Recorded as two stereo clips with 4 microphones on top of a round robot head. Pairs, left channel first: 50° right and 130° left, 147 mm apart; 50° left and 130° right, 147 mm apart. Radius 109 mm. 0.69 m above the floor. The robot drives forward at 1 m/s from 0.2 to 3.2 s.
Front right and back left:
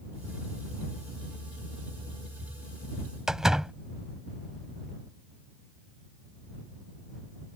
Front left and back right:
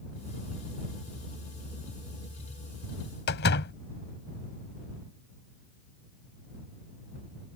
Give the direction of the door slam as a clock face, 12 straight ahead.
10 o'clock.